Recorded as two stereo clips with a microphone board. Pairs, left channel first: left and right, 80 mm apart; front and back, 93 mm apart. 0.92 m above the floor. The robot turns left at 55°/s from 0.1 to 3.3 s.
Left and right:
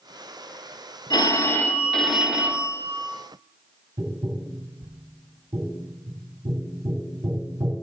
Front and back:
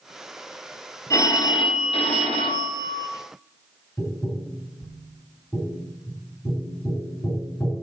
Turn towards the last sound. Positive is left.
turn(degrees=-50)